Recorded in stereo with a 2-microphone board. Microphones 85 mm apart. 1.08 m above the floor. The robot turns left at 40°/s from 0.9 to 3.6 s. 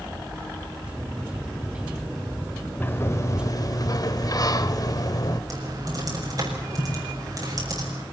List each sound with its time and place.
2.8 s a sliding door: 155° left, 1.2 m; by 5.4 s 120° left, 1.2 m
5.5 s typing on a keyboard: 45° right (ahead or behind), 7 m